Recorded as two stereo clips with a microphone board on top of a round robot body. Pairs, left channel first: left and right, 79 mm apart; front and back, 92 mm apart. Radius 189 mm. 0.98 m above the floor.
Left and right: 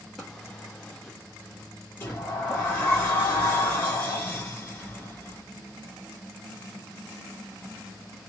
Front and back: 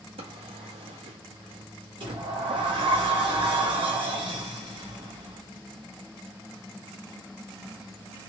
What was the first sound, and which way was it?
A drawer, 175° left.